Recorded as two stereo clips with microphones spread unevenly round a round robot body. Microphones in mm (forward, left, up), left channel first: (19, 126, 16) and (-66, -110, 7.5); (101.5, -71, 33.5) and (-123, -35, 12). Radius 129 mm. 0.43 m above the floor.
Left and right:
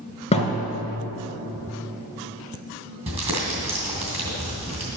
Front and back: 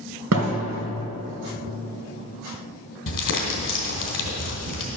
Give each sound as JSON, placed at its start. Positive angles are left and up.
{"t": 0.3, "sound": "a thud", "azimuth_deg": 140, "distance_m": 2.0}
{"t": 3.1, "sound": "crumpling", "azimuth_deg": -40, "distance_m": 2.5}